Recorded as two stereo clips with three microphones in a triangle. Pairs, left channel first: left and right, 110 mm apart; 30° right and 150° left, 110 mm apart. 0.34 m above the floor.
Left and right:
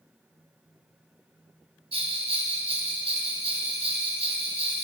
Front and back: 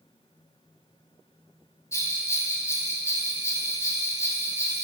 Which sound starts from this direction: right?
A bell, at 1.9 s.